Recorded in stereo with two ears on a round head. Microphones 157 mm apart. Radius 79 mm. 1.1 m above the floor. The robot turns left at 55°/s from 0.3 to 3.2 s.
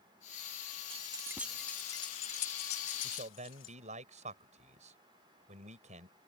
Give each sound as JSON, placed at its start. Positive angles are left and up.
{"t": 0.9, "sound": "keys jangling", "side_deg": -35}
{"t": 3.0, "sound": "a man speaking", "side_deg": -50}